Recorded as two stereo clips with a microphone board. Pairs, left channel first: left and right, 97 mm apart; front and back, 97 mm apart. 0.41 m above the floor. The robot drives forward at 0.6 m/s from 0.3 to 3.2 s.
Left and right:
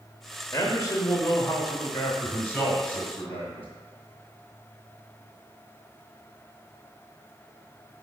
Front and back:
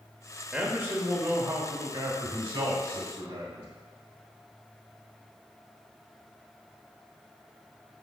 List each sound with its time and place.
0.5 s a man speaking: 110° left, 1.1 m; by 3.6 s 160° left, 2 m